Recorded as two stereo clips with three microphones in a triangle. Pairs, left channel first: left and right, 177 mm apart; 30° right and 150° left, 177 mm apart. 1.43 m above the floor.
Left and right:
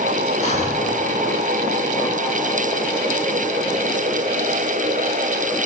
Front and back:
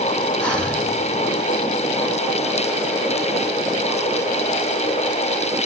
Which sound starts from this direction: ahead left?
Breathing, at 0.4 s.